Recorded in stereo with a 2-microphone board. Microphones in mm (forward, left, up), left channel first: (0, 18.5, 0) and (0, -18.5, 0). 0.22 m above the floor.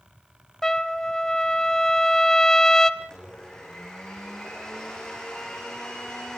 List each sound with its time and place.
0.6 s a trumpet: 15° left (ahead or behind), 0.9 m
3.0 s a blender: 15° left (ahead or behind), 5.5 m